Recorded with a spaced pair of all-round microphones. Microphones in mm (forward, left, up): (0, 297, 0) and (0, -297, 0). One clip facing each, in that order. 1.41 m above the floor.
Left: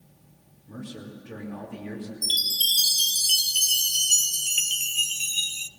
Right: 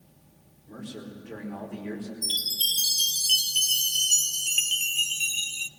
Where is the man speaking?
35° left (ahead or behind), 4.5 m.